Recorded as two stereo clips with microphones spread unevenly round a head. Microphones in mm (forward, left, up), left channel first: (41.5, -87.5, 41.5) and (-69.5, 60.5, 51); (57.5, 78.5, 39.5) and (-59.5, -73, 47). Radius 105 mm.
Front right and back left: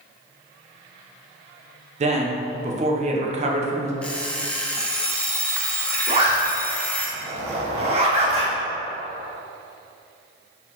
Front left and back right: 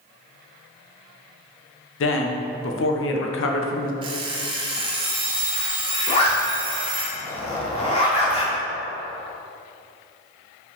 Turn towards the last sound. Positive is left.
turn(degrees=95)